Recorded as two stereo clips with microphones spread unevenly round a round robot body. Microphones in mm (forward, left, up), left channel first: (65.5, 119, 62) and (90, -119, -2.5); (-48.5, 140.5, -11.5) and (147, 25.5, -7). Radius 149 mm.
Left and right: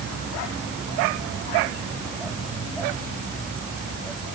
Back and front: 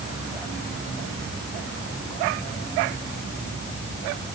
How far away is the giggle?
No giggle in this recording.